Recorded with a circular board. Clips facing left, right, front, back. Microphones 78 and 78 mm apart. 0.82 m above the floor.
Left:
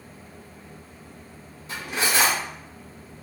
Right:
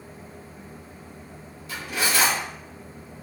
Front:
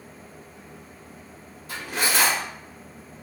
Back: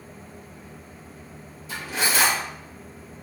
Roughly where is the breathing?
I don't hear breathing.